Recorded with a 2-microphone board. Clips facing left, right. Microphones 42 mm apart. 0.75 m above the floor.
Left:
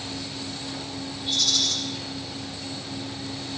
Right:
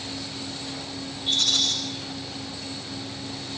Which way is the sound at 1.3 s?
35° right (ahead or behind).